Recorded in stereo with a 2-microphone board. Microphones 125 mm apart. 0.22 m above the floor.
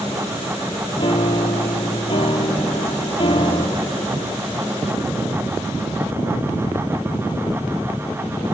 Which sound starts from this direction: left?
A piano, at 1.0 s.